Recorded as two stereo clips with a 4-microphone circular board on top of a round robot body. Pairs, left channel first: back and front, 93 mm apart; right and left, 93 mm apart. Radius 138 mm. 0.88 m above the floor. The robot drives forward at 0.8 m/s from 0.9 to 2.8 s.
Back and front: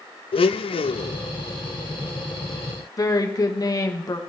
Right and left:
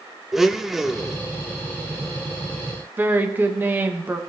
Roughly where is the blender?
Behind.